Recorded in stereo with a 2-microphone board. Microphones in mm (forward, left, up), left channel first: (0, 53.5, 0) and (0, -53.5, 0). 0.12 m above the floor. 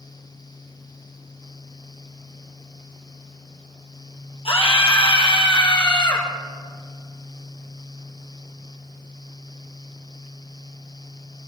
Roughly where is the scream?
Left.